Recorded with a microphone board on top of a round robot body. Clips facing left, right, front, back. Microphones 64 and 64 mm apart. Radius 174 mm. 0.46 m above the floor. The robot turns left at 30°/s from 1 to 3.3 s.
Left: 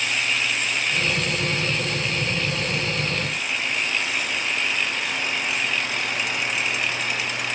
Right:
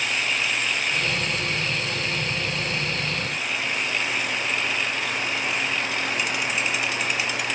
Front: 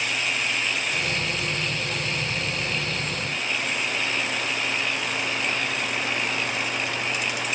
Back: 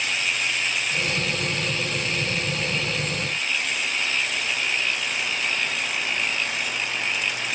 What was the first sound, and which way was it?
Only background noise.